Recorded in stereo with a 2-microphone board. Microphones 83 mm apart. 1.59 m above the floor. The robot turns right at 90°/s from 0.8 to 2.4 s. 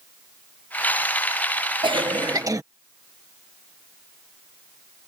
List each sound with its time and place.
1.8 s a cough: 95° right; by 2.6 s 45° right